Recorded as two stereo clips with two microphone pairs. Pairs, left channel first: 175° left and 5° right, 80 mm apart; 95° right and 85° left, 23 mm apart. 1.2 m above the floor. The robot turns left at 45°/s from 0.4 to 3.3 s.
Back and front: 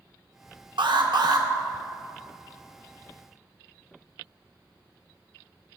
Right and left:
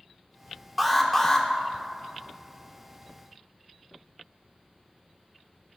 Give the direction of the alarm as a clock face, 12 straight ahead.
12 o'clock.